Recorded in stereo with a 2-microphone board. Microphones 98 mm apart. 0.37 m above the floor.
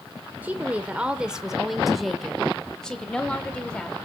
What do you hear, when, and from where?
0.4 s a woman speaking: 20° right (ahead or behind), 1.1 m; by 4.0 s 10° left (ahead or behind), 1.9 m